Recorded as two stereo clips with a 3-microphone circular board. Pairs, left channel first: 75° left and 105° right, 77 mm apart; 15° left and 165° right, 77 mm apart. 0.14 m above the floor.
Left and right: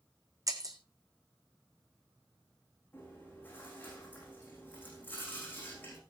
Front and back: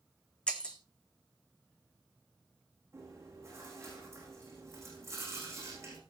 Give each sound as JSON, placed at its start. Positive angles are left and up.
{"t": 0.5, "sound": "breaking glass", "azimuth_deg": -65, "distance_m": 1.4}
{"t": 2.9, "sound": "chewing", "azimuth_deg": 140, "distance_m": 7.0}